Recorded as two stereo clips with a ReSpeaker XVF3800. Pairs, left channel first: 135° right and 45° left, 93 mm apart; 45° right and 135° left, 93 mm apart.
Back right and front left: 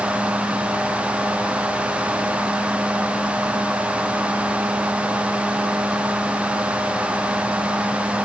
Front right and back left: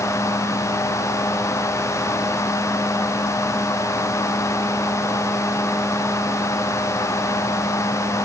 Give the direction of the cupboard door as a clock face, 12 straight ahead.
I don't hear a cupboard door.